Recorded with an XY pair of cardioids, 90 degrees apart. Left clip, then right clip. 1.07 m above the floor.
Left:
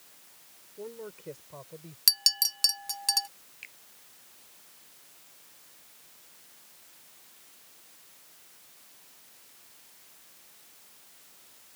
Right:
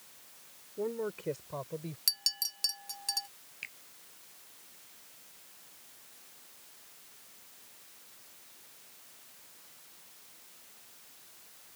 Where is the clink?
55° left.